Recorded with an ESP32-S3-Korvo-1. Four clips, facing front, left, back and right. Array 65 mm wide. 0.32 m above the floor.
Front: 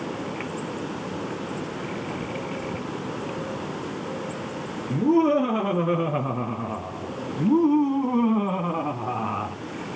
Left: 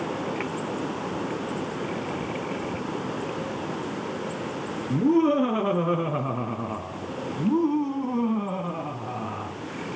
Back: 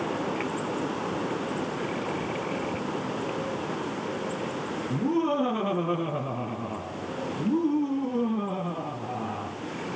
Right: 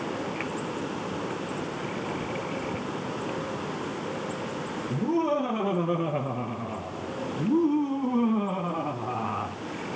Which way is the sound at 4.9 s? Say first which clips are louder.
Left 6 dB, front 7 dB; 65° left.